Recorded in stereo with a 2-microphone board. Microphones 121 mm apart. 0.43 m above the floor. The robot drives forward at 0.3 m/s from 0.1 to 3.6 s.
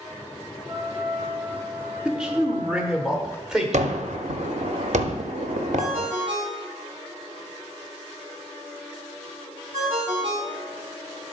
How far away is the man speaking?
About 0.8 m.